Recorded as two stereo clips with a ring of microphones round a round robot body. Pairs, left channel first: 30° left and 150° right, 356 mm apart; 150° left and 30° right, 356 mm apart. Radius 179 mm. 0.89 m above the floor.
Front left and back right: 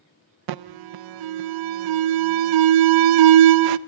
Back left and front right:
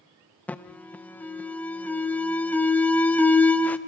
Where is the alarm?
125° right, 0.5 m.